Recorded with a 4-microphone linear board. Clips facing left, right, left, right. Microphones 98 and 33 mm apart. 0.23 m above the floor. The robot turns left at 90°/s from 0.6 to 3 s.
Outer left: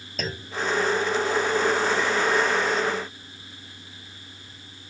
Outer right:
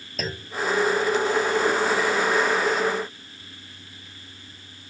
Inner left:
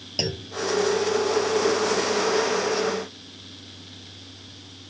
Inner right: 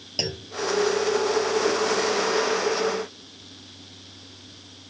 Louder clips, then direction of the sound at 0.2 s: Even, inner left 1 dB; centre (ahead or behind).